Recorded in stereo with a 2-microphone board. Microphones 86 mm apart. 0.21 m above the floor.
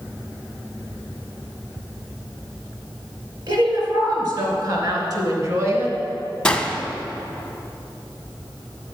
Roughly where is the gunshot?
Centre.